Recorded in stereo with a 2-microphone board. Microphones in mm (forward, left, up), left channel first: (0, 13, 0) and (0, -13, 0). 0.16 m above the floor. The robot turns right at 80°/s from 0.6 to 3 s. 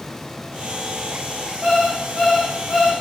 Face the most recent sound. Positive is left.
turn(degrees=80)